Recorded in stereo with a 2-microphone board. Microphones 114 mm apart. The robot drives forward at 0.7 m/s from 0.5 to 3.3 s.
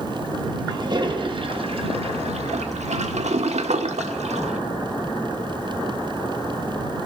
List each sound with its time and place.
0.7 s a toilet flushing: 40° right (ahead or behind), 2 m; by 4.6 s 75° right (ahead or behind), 1.3 m